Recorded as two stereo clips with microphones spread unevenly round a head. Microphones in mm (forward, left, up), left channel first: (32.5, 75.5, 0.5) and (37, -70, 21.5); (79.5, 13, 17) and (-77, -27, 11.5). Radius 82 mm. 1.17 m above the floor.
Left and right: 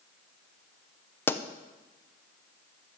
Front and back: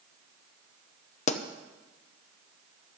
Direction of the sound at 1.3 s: 35° left.